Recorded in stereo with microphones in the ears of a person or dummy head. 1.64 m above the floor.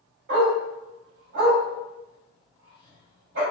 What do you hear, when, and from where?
0.3 s a dog barking: 50° right (ahead or behind), 1.9 m